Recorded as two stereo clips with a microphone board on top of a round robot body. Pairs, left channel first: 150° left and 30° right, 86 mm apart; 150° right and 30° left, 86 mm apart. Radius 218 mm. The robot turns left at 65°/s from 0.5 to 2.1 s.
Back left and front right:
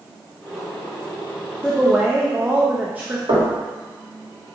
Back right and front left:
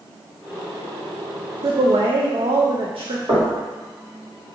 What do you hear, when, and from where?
1.6 s a woman speaking: 75° left, 0.5 m; by 3.2 s 45° left, 0.5 m
3.3 s knocking: 15° right, 1.6 m